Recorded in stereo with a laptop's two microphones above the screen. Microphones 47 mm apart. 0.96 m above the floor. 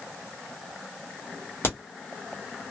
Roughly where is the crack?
Left.